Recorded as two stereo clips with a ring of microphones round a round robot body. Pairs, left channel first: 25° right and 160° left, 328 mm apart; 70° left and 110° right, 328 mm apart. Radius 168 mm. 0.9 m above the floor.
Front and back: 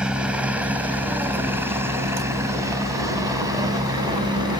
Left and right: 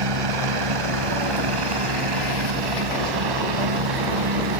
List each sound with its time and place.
0.0 s a helicopter: 115° right; by 4.6 s 125° right